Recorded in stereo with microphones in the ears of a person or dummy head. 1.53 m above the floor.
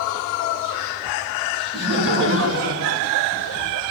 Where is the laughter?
55° right (ahead or behind), 1.7 m; by 3.8 s 75° right (ahead or behind), 1.5 m.